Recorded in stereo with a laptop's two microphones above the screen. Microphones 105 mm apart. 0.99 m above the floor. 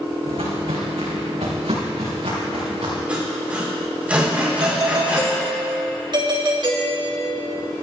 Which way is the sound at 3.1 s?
15° right (ahead or behind).